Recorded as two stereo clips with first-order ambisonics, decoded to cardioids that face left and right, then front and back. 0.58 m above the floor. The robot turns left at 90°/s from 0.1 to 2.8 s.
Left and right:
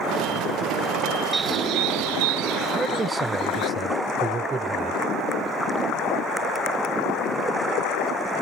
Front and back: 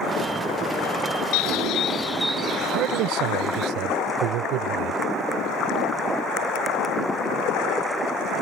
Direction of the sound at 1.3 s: 10° right.